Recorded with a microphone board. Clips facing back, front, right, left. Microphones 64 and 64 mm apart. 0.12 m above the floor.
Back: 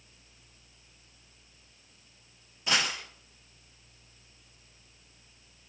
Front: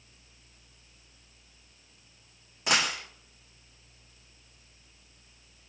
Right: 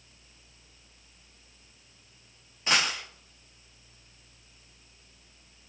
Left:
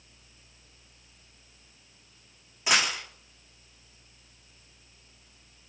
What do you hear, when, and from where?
2.7 s a dropped coin: 10° left, 1.2 m